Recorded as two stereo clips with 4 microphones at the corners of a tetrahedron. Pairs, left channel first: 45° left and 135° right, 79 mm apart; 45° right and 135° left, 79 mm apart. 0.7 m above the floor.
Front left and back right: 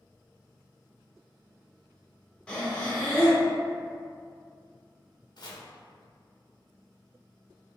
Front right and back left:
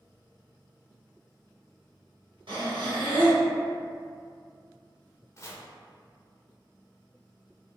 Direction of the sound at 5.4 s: 10° left.